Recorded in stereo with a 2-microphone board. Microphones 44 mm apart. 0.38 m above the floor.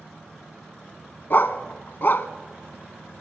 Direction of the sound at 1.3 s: 50° left (ahead or behind).